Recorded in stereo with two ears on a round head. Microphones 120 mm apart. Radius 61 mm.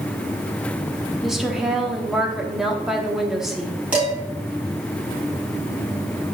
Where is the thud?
I don't hear a thud.